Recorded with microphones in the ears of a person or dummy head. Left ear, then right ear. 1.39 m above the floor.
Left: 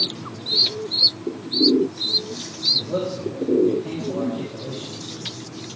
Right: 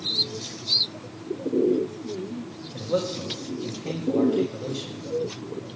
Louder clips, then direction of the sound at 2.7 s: Left 3 dB; 75° right (ahead or behind).